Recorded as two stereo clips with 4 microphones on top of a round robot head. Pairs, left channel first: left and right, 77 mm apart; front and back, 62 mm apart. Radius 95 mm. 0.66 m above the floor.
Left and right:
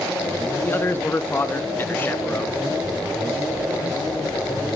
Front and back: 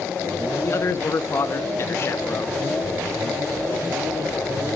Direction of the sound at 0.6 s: 35° left.